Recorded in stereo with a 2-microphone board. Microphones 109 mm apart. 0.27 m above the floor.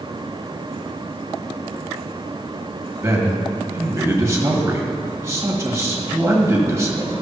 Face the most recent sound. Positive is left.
turn(degrees=-25)  # may be behind; listen again after turning